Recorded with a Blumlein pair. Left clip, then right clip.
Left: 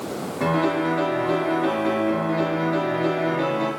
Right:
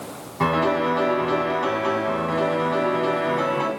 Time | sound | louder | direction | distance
0.4 | a piano | right 2 dB | 65° right | 2 m